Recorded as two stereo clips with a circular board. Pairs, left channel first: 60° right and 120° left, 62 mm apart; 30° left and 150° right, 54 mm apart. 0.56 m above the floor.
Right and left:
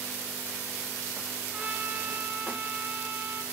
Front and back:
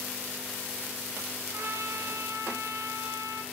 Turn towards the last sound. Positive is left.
turn(degrees=-170)